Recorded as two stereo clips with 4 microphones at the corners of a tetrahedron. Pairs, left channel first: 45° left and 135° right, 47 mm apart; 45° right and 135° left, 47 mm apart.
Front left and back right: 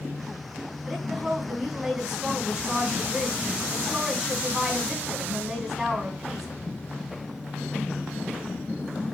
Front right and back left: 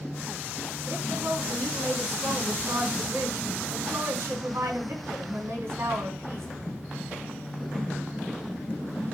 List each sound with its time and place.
0.8 s a woman speaking: 145° left, 4 m